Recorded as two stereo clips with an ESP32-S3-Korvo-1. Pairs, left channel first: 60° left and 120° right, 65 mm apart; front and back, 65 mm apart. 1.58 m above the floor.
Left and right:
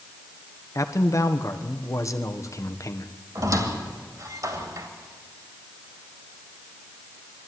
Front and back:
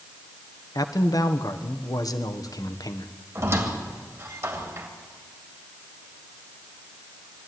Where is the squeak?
140° right, 2.5 m.